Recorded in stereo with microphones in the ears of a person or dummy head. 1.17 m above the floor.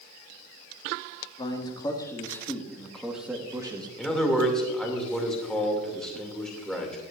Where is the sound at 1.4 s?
30° left (ahead or behind), 2 m; by 3.9 s 15° right (ahead or behind), 1.5 m.